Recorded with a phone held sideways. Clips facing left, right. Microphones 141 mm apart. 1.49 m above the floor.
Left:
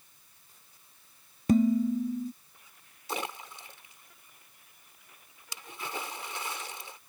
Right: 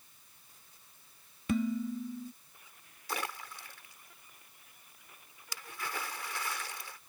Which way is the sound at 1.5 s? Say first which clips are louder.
Left 8 dB; 40° left (ahead or behind).